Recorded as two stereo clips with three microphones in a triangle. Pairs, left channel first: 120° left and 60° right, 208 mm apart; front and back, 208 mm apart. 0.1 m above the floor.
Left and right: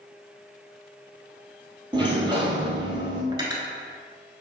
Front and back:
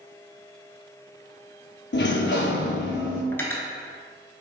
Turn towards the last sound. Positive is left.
turn(degrees=-55)